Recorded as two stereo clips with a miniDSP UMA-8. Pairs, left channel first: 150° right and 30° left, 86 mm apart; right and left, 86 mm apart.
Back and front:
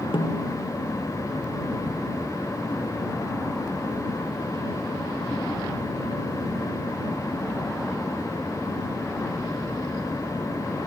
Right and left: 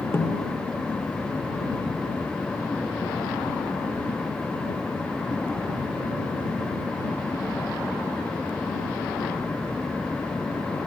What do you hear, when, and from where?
0.1 s a snare drum: 155° right